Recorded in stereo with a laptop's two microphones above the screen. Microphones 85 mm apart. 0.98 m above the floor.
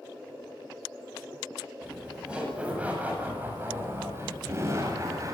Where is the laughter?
5° right (ahead or behind), 8 m; by 5.3 s 40° right (ahead or behind), 8 m.